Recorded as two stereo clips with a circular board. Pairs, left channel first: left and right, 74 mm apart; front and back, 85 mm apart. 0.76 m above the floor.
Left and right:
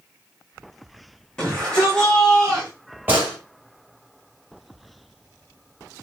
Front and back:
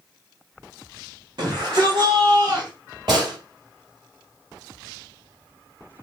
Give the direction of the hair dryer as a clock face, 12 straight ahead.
I don't hear a hair dryer.